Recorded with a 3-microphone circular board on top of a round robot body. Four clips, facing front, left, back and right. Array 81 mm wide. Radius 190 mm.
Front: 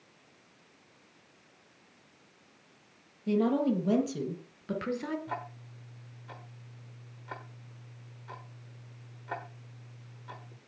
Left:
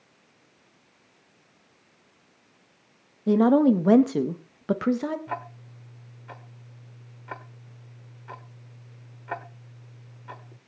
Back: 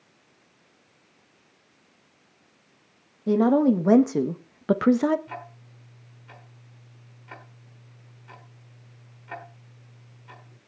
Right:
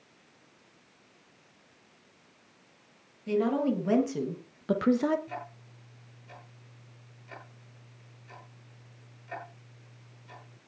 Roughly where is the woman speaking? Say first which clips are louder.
Left 9 dB, back 8 dB; behind left.